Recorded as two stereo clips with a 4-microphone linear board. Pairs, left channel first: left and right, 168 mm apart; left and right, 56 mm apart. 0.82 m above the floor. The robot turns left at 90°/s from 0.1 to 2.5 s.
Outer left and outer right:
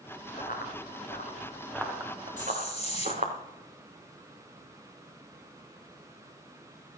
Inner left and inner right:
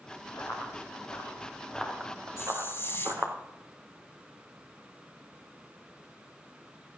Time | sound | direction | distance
0.4 | running footsteps | 50° left (ahead or behind) | 4 m
2.4 | a hiss | 55° left (ahead or behind) | 1.4 m